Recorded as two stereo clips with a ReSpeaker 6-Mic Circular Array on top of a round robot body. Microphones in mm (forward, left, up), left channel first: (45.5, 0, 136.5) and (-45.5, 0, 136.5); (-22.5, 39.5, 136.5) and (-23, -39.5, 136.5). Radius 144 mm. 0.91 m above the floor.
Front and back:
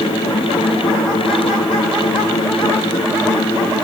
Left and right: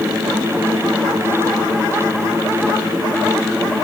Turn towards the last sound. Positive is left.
No sound to turn to.